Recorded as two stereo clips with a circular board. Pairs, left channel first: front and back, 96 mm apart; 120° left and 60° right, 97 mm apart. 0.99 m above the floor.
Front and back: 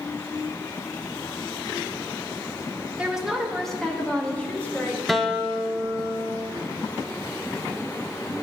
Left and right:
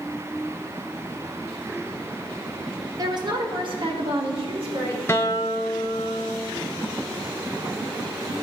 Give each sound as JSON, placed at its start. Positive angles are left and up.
{"t": 3.0, "sound": "a woman speaking", "azimuth_deg": -105, "distance_m": 1.1}
{"t": 5.1, "sound": "a guitar", "azimuth_deg": 85, "distance_m": 0.6}